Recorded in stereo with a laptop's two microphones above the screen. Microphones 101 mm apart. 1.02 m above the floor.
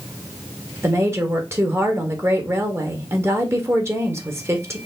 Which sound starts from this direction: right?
A woman speaking, at 0.8 s.